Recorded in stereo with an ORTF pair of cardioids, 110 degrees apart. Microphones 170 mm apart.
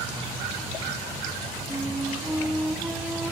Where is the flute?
Straight ahead, 1.5 m.